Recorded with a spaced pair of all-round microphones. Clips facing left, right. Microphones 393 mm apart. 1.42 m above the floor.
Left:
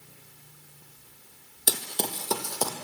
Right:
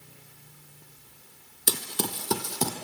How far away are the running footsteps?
About 1.9 m.